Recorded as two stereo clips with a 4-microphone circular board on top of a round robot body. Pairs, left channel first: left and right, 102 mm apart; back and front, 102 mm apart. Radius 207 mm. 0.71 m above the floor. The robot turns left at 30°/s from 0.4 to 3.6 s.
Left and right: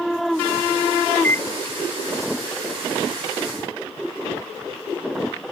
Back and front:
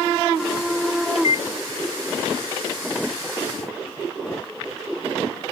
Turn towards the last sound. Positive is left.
turn(degrees=90)